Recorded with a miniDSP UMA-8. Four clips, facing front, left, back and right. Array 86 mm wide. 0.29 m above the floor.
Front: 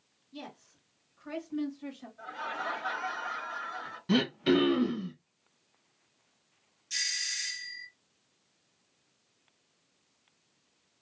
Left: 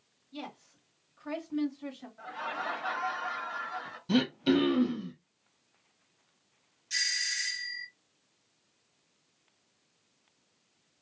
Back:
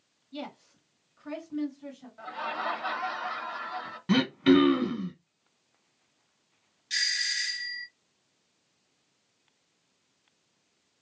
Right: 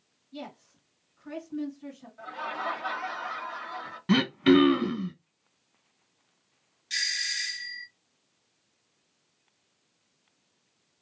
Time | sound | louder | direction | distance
0.3 | a woman speaking | right 1 dB, back 6 dB | 175° right | 1.3 m
2.2 | laughter | right 3 dB, back 4 dB | 170° right | 1.0 m
4.1 | throat clearing | right 5 dB, back 4 dB | 120° right | 1.0 m
6.9 | a doorbell | right 2 dB, back 7 dB | 145° right | 2.5 m